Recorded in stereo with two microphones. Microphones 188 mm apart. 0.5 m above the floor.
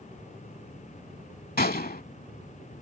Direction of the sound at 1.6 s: 50° left (ahead or behind).